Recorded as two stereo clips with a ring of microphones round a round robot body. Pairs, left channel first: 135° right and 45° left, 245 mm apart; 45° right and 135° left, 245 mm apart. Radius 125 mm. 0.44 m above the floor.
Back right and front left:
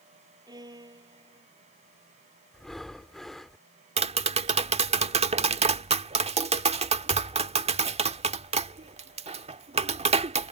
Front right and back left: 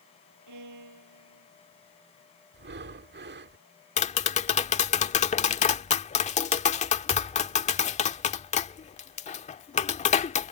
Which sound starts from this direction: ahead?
Tapping, at 4.0 s.